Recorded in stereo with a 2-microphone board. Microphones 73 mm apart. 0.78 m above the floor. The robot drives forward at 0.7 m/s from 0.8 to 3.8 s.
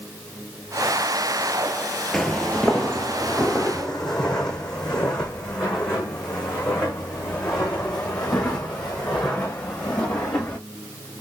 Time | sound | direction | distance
2.1 | footsteps | 5° left (ahead or behind) | 1.0 m